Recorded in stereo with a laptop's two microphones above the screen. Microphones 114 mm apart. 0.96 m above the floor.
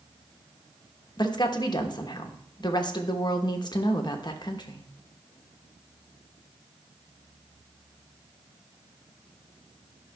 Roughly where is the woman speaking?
Left.